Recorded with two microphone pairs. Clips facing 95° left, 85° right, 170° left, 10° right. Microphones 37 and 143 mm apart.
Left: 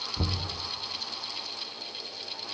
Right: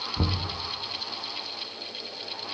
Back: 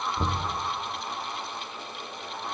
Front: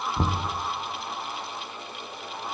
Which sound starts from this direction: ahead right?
Knocking, at 0.2 s.